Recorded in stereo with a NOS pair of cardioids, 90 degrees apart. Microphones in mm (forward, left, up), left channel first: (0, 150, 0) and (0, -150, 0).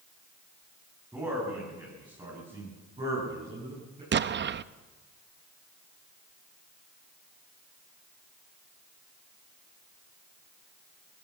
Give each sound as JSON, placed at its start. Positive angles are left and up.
{"t": 1.1, "sound": "a man speaking", "azimuth_deg": -10, "distance_m": 10.0}
{"t": 4.1, "sound": "an explosion", "azimuth_deg": -40, "distance_m": 0.7}